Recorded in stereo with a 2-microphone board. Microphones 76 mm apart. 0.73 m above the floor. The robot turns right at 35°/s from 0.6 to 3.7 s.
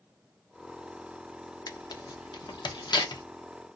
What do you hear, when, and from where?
1.7 s tearing paper: 60° left (ahead or behind), 0.6 m; by 3.2 s 65° left (ahead or behind), 0.6 m